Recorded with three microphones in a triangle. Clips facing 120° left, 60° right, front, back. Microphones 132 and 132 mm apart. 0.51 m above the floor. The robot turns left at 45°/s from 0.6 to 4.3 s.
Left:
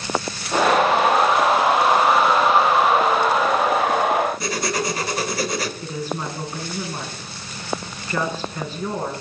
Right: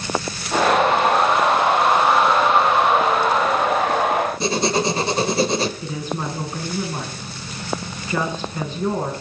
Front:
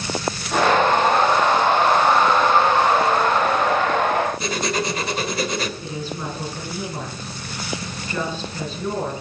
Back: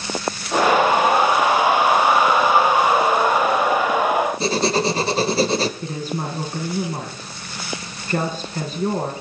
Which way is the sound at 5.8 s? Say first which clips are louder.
Right 1 dB, back 2 dB; 135° right.